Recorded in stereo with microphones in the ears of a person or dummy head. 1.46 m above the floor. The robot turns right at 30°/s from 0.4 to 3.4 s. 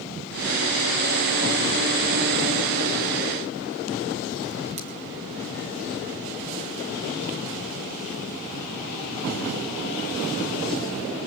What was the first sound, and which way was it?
Scissors, 25° right (ahead or behind).